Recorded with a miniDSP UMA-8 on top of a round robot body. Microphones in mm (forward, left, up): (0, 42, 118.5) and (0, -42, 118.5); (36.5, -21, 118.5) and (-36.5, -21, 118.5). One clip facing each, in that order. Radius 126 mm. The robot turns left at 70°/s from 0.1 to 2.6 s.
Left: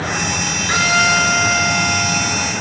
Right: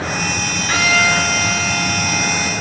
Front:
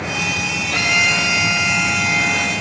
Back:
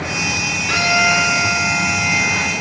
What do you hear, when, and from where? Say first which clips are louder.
0.7 s a violin: left 1 dB, back 4 dB; 170° left, 6 m; by 2.5 s 40° left, 6 m